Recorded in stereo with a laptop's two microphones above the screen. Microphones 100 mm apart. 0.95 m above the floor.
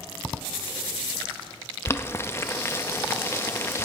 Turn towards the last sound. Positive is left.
turn(degrees=25)  # may be behind; listen again after turning